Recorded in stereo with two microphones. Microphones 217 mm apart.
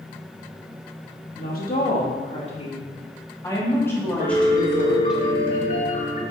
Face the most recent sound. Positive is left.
turn(degrees=40)  # may be behind; listen again after turning